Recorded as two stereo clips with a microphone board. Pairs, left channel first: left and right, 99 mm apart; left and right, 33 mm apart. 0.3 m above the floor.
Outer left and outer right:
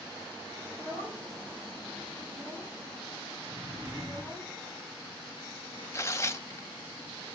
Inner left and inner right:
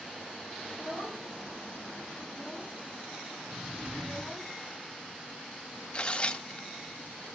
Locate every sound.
0.7 s a child speaking: 45° right (ahead or behind), 7.5 m
3.5 s a drawer: 35° right (ahead or behind), 7 m
5.9 s tearing paper: 30° left (ahead or behind), 0.6 m